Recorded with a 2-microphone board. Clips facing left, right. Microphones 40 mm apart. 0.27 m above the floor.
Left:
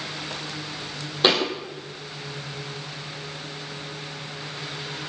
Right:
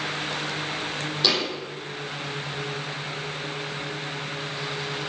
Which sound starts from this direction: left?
A thud, at 1.2 s.